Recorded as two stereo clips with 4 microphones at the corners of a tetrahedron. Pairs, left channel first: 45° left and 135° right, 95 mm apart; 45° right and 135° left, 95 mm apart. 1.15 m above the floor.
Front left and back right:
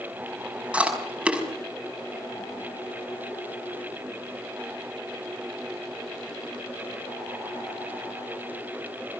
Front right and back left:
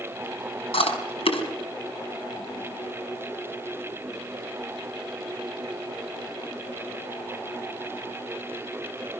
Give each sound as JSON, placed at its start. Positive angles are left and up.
{"t": 0.7, "sound": "chewing", "azimuth_deg": -55, "distance_m": 5.5}